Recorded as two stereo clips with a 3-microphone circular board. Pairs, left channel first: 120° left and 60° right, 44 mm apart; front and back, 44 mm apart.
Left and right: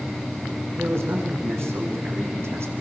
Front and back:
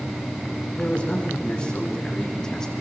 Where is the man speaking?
65° right, 7.5 m; by 2.7 s 80° right, 5.5 m.